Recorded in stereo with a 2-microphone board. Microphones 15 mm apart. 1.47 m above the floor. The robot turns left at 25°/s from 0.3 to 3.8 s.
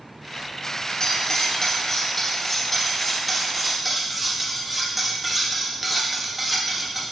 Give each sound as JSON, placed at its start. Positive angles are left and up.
{"t": 1.0, "sound": "cutlery clinking", "azimuth_deg": 60, "distance_m": 1.0}